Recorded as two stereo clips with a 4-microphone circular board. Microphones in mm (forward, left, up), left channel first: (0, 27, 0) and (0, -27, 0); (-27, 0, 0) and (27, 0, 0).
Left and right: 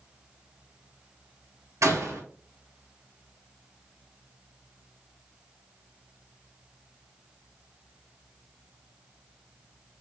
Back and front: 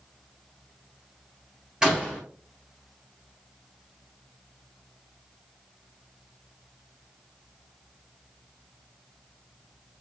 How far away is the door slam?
About 1.9 m.